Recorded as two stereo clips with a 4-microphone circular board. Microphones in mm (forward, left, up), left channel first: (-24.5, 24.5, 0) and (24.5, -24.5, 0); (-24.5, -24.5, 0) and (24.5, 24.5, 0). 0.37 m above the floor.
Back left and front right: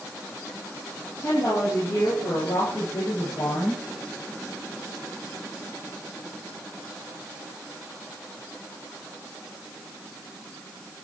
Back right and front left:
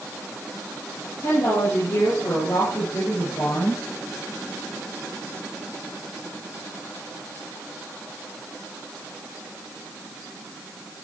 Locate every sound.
1.2 s a woman speaking: straight behind, 9.5 m; by 3.8 s 170° left, 10 m